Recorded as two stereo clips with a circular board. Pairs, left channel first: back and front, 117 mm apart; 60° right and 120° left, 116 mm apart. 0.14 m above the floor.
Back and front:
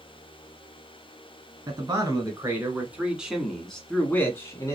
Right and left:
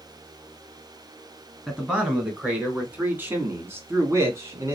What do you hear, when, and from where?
1.7 s a man speaking: 40° left, 1.8 m; by 4.8 s 155° left, 1.4 m